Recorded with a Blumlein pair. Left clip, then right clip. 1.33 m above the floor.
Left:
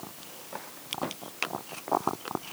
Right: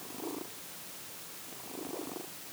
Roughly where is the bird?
No bird in this recording.